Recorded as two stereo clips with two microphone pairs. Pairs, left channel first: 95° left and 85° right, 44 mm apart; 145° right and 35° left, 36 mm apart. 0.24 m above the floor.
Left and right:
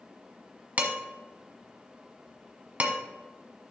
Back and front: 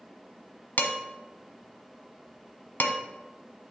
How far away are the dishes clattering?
About 1.3 m.